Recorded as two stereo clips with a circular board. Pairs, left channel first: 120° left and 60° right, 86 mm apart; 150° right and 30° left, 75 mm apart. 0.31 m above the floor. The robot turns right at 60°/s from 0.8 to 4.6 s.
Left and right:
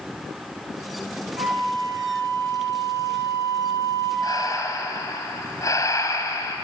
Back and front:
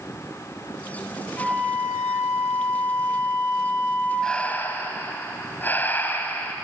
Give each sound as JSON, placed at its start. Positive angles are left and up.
{"t": 1.4, "sound": "a flute", "azimuth_deg": -90, "distance_m": 9.5}
{"t": 4.2, "sound": "breathing", "azimuth_deg": 130, "distance_m": 2.0}